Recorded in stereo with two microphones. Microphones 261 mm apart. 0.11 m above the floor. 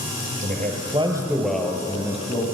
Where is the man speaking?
35° right (ahead or behind), 2.5 m; by 2.5 s 30° left (ahead or behind), 2.5 m.